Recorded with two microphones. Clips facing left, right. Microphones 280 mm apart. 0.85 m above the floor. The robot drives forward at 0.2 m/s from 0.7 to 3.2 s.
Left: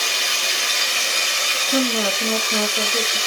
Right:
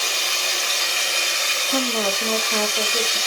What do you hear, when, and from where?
0.0 s running water: 80° left, 1.4 m; by 3.3 s 70° left (ahead or behind), 1.5 m
1.7 s a woman speaking: 20° left (ahead or behind), 0.7 m